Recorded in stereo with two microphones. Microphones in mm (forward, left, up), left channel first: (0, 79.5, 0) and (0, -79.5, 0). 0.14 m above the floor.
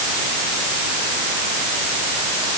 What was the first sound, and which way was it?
Only background noise.